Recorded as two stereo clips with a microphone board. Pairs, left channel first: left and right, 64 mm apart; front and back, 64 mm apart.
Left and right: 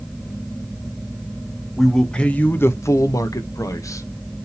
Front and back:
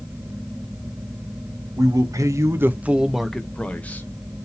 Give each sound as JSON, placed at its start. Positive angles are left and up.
{"t": 1.8, "sound": "a man speaking", "azimuth_deg": 175, "distance_m": 0.9}